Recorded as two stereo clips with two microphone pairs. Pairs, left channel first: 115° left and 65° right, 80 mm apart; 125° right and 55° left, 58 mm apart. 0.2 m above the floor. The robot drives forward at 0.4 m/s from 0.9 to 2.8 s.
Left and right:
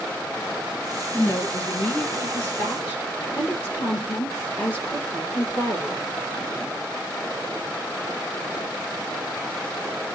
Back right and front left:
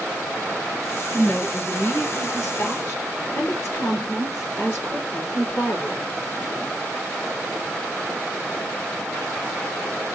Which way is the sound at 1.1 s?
Straight behind.